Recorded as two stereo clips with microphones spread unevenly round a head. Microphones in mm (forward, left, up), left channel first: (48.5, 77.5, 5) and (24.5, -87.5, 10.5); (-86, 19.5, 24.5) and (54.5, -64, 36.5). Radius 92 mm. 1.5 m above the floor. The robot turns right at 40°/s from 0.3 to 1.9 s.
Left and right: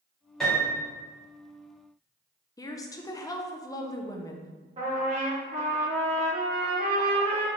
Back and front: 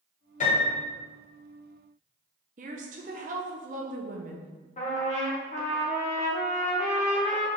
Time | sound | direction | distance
0.4 | a piano | 170° left | 1.7 m
2.6 | a woman speaking | 15° left | 0.6 m
4.8 | a trumpet | 160° right | 1.1 m